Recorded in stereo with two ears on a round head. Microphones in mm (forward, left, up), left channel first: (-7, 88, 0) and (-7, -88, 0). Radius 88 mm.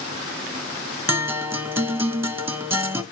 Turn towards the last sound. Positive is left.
turn(degrees=-10)  # may be behind; listen again after turning